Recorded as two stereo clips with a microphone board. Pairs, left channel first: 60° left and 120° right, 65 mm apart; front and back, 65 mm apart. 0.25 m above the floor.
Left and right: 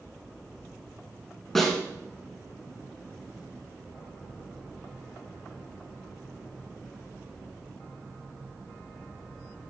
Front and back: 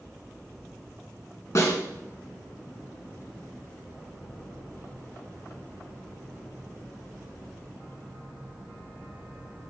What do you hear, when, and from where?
1.6 s a snare drum: 25° right, 2.5 m